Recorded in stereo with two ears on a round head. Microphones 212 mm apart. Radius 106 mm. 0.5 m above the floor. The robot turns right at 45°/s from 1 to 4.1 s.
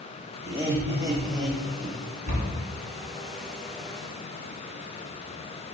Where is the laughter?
15° right (ahead or behind), 0.7 m; by 2.0 s 20° right (ahead or behind), 0.7 m.